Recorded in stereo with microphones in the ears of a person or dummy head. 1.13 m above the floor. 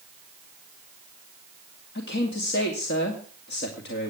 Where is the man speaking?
55° left (ahead or behind), 2.5 m.